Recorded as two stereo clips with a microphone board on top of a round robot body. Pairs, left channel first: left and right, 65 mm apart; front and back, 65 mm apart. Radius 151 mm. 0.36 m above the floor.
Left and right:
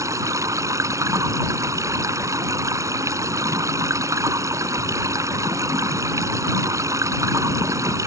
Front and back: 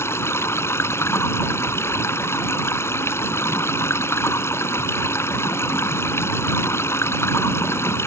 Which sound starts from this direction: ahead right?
Running water, at 0.0 s.